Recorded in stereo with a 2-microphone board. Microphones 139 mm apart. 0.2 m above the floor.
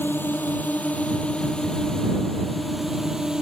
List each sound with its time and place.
0.0 s a drone: 15° left (ahead or behind); by 3.4 s 5° right (ahead or behind)